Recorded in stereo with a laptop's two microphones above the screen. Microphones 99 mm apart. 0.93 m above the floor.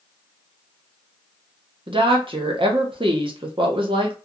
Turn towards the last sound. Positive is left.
turn(degrees=-55)  # may be behind; listen again after turning